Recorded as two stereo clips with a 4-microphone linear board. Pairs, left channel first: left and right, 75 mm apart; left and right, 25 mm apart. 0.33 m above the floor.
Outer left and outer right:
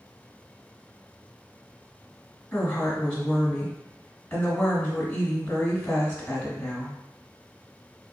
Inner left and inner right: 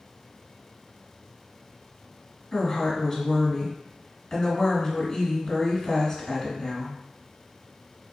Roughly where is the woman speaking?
Centre.